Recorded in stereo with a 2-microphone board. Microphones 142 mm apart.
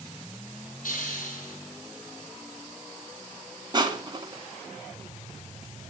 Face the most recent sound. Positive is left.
turn(degrees=-35)  # may be behind; listen again after turning